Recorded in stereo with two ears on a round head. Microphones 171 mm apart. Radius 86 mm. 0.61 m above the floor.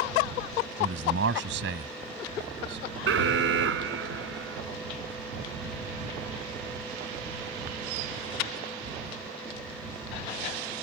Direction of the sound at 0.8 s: 70° right (ahead or behind).